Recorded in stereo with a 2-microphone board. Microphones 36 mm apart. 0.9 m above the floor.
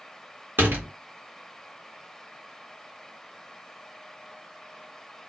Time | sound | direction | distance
0.6 | a door slam | 75° right (ahead or behind) | 1.1 m